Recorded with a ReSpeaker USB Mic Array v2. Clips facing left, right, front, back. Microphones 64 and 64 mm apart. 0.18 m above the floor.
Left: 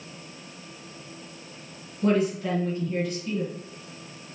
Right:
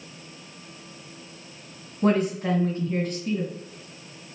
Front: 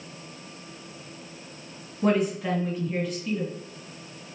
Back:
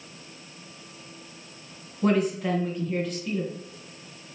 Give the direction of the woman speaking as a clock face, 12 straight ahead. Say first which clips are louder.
Right 1 dB, even; 3 o'clock.